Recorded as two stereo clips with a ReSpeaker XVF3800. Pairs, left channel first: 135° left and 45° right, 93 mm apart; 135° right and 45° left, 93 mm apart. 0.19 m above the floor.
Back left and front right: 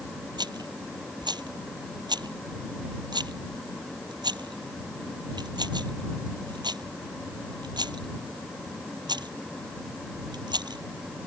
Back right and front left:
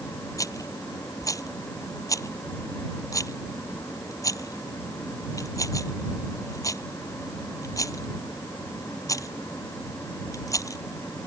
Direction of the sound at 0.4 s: 85° right.